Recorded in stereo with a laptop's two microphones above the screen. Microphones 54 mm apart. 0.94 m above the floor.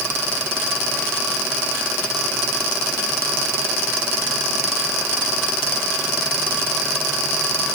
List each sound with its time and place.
Only background noise.